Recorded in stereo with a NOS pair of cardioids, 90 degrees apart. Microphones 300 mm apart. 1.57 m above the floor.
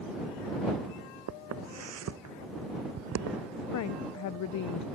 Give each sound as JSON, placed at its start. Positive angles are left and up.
{"t": 1.3, "sound": "footsteps", "azimuth_deg": -60}
{"t": 3.7, "sound": "a woman speaking", "azimuth_deg": 70}